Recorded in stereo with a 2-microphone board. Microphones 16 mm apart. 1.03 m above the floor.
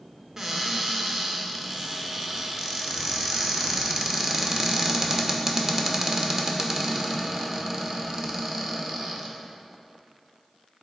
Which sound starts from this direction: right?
A cupboard door, at 0.4 s.